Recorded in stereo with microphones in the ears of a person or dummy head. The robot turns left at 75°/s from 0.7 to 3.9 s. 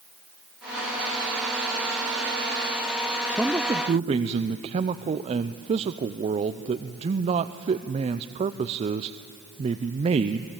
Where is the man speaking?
5° left, 0.7 m; by 10.5 s 40° right, 0.7 m.